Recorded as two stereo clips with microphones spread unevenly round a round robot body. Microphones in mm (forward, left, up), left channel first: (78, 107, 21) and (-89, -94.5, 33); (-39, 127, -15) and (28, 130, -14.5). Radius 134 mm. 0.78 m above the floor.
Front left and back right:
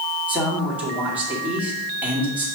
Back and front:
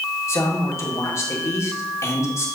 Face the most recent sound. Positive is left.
turn(degrees=145)